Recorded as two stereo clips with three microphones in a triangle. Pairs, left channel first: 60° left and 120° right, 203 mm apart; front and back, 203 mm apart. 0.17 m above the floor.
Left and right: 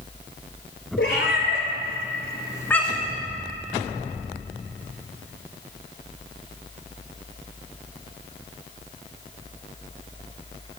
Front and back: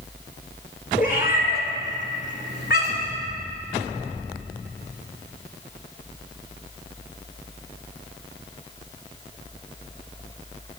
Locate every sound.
1.0 s a cat meowing: 45° left, 1.0 m; by 3.2 s 40° right, 0.8 m